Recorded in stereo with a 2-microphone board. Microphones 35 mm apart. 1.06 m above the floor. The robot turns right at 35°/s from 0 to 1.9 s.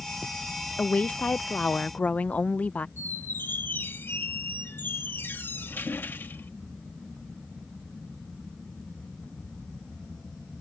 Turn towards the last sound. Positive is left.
turn(degrees=75)  # may be behind; listen again after turning